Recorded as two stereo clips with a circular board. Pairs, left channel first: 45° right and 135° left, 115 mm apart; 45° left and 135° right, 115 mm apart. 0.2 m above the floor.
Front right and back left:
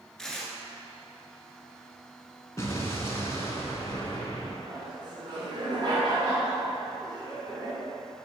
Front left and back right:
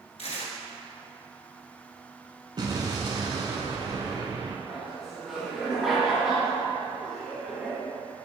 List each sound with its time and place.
0.2 s tearing paper: 40° left, 1.1 m
2.6 s an explosion: 100° right, 1.1 m
4.7 s laughter: 140° left, 1.9 m